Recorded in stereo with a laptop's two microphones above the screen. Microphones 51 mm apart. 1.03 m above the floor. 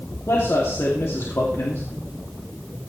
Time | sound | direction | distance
0.3 | a man speaking | 70° left (ahead or behind) | 2.5 m